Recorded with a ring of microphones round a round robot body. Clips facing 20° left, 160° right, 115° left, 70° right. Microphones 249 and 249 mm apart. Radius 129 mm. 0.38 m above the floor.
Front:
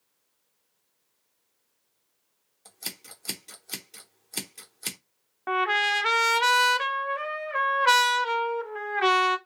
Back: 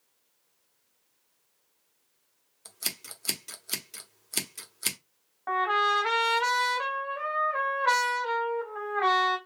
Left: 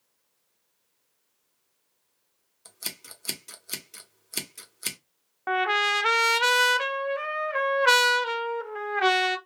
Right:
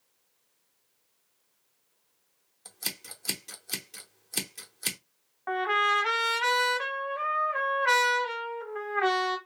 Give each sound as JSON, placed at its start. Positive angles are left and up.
{"t": 2.6, "sound": "scissors", "azimuth_deg": 170, "distance_m": 1.0}
{"t": 5.5, "sound": "a trumpet", "azimuth_deg": 75, "distance_m": 0.5}